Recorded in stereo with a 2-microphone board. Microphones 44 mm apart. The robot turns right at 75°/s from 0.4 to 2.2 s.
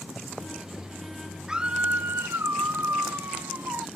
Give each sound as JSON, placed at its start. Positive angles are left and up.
{"t": 1.5, "sound": "a scream", "azimuth_deg": -165}